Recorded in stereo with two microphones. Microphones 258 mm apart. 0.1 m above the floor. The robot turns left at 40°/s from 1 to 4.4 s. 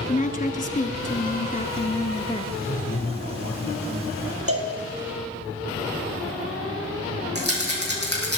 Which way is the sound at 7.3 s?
40° right (ahead or behind).